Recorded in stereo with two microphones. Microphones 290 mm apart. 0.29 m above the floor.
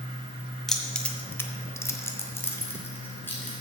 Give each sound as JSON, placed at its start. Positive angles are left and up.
{"t": 0.7, "sound": "keys jangling", "side_deg": 0, "distance_m": 1.4}